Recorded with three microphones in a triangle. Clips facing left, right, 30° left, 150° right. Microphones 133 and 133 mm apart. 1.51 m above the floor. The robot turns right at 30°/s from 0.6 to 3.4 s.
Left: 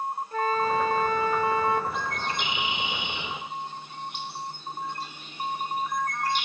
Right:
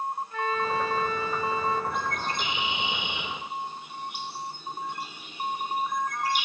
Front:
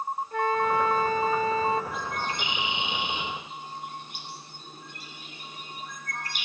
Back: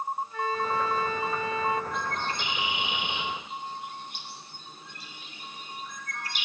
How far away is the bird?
About 2 m.